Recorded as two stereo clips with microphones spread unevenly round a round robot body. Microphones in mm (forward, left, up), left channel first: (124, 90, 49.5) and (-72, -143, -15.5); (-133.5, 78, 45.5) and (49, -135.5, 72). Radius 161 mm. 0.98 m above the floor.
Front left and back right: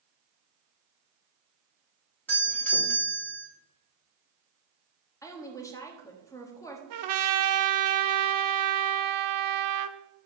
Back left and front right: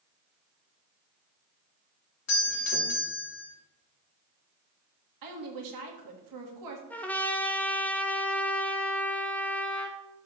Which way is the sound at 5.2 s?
35° right.